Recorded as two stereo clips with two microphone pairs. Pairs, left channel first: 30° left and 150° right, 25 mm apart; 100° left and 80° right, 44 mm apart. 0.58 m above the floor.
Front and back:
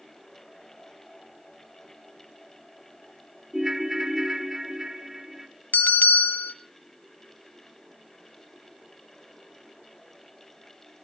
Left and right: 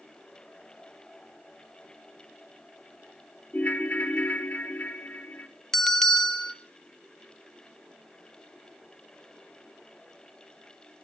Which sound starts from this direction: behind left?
A ringtone, at 3.5 s.